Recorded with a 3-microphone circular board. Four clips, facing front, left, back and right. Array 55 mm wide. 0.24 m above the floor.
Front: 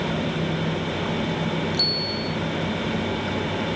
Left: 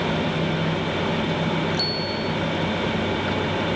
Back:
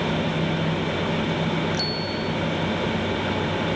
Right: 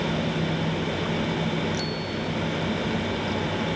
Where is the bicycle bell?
170° left.